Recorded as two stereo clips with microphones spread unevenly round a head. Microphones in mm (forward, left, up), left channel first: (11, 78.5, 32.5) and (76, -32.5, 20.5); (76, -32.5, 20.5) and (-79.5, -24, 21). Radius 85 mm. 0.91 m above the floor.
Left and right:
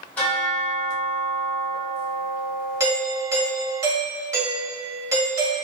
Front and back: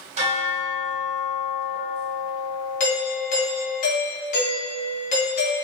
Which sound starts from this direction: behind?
A bell, at 0.2 s.